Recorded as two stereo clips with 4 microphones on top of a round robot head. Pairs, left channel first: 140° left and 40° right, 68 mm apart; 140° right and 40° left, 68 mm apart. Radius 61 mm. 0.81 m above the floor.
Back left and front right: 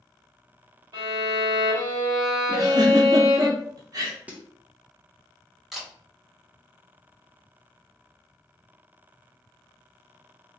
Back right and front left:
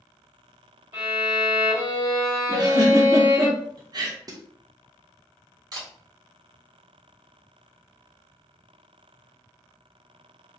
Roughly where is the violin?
Ahead.